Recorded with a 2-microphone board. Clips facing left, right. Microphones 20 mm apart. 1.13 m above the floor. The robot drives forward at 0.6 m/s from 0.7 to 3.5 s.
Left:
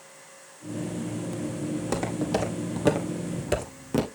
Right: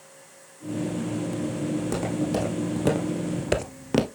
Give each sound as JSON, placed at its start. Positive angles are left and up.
{"t": 1.8, "sound": "footsteps", "side_deg": 20, "distance_m": 3.5}